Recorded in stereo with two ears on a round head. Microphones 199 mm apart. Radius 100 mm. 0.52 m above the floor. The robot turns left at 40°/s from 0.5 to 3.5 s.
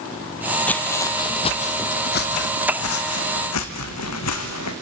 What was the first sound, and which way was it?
Footsteps, 5° left (ahead or behind).